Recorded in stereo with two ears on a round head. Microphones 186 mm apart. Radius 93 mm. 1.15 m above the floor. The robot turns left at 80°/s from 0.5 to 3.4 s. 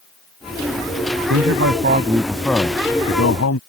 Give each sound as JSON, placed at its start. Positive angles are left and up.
{"t": 1.3, "sound": "a man speaking", "azimuth_deg": -90}